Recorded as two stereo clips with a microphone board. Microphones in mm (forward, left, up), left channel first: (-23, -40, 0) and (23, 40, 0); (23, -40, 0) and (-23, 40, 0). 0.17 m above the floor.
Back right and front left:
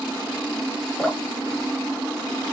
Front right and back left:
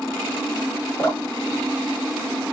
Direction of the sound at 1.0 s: 45° right.